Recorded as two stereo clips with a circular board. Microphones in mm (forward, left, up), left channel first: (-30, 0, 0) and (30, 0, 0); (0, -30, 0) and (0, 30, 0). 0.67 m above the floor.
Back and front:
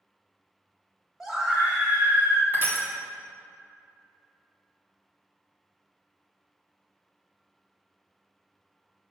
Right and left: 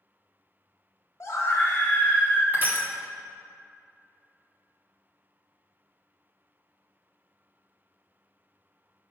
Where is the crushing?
40° left, 1.2 m.